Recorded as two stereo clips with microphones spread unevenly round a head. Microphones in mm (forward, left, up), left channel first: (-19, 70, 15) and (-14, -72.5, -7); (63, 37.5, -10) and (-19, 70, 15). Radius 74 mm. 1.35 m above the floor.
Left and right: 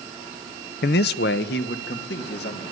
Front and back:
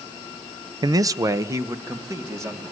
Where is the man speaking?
110° left, 0.6 m; by 2.6 s 100° left, 3 m.